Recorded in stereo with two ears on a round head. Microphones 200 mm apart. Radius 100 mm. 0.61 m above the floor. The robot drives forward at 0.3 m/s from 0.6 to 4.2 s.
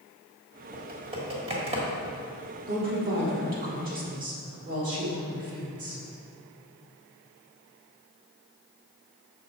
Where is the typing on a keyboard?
25° right (ahead or behind), 1.6 m.